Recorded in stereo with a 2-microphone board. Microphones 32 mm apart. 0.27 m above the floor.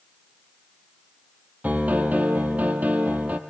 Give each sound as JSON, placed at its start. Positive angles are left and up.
{"t": 1.6, "sound": "a piano", "side_deg": -55, "distance_m": 2.5}